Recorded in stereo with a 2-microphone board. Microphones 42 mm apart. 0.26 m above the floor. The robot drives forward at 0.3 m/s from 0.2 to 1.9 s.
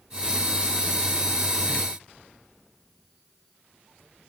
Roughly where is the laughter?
No laughter in this recording.